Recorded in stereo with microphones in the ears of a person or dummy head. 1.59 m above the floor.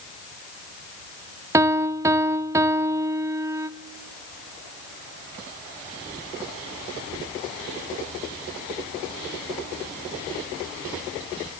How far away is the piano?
About 0.5 m.